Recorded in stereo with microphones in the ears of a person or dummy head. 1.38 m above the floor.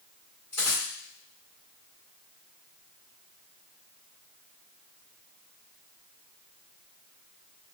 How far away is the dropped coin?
About 1.6 m.